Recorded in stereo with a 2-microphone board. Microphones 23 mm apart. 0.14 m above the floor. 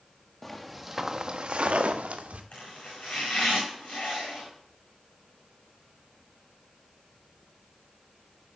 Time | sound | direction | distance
0.4 | footsteps | 15° left (ahead or behind) | 1.6 m
2.5 | chopping | 80° left | 5.5 m